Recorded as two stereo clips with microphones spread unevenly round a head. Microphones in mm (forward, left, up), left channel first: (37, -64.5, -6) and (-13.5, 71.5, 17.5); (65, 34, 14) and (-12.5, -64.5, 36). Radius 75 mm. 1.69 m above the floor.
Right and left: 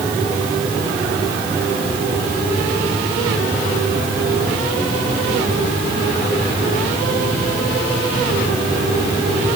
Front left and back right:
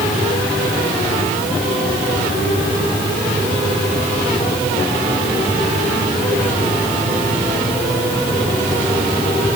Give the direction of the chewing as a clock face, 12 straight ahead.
I don't hear chewing.